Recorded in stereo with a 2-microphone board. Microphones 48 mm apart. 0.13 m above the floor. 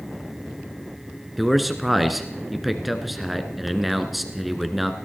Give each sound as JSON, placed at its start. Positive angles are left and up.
{"t": 1.4, "sound": "a man speaking", "side_deg": 0, "distance_m": 1.4}